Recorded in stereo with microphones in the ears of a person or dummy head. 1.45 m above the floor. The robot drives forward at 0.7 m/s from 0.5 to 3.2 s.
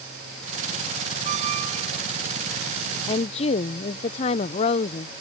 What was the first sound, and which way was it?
A squeak, 50° right (ahead or behind).